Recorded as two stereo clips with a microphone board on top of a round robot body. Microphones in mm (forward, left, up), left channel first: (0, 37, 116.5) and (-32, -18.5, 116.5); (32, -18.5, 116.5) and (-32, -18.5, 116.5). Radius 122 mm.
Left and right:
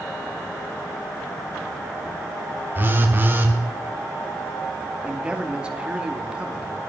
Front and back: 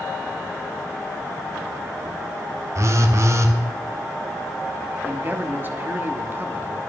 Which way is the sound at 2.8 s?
165° right.